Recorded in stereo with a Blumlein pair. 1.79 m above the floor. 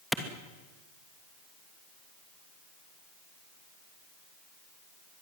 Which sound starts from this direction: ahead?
A clap, at 0.1 s.